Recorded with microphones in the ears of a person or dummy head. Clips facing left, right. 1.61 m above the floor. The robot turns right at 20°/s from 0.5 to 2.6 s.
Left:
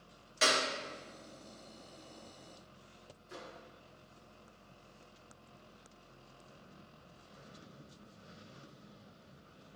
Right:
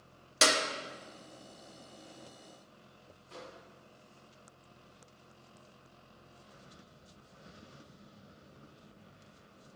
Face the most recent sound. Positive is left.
turn(degrees=20)  # may be behind; listen again after turning